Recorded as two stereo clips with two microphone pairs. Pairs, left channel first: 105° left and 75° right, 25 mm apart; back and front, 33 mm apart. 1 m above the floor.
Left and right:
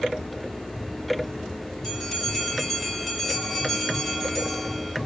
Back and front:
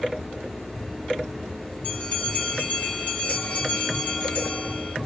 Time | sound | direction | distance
1.8 | a bell | 170° right | 1.6 m